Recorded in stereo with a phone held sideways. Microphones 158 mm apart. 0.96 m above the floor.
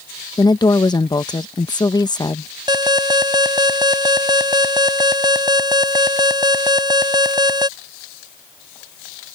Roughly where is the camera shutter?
I don't hear a camera shutter.